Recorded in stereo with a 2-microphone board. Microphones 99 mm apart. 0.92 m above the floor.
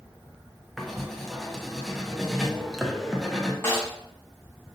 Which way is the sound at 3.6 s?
30° left (ahead or behind).